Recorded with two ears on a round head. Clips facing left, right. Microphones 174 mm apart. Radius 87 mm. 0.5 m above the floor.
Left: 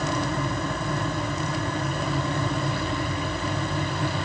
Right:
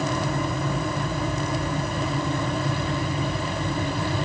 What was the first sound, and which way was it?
Only background noise.